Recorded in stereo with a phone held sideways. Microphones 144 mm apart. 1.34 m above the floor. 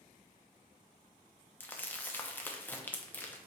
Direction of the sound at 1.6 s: 10° left (ahead or behind).